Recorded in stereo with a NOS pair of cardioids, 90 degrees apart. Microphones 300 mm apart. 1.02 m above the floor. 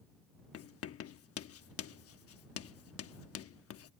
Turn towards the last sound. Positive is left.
turn(degrees=50)